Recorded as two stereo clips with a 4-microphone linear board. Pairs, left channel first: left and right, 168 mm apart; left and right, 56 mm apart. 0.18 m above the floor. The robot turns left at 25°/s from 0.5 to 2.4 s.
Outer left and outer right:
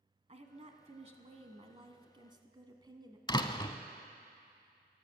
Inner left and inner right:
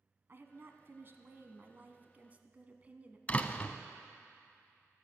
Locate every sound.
0.3 s a woman speaking: 90° right, 1.2 m; by 3.2 s 140° right, 1.2 m
3.3 s a door slam: 25° left (ahead or behind), 0.7 m